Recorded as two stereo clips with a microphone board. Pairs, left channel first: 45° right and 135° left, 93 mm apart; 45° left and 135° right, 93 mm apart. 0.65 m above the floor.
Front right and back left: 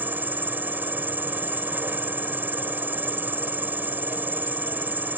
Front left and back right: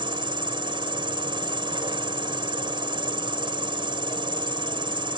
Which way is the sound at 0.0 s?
155° right.